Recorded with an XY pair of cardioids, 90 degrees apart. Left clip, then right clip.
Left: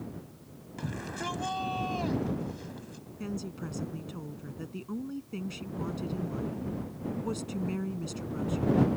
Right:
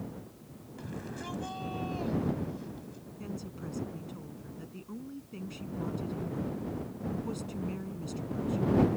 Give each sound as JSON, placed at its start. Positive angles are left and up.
{"t": 0.8, "sound": "a shout", "azimuth_deg": 55}
{"t": 3.2, "sound": "a woman speaking", "azimuth_deg": 45}